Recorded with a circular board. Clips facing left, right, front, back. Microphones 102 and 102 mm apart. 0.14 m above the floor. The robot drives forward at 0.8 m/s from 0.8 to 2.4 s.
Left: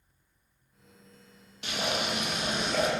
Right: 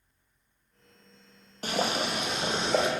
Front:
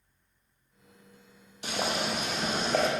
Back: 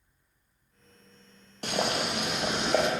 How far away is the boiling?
About 1.8 m.